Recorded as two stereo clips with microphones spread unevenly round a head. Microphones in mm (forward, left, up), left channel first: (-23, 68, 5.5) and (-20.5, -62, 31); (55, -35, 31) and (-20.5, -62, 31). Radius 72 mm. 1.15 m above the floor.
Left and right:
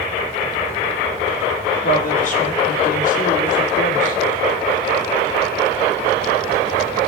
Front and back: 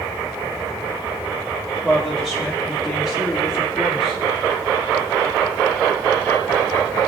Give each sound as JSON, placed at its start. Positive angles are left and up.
{"t": 1.8, "sound": "a woman speaking", "azimuth_deg": 110, "distance_m": 2.5}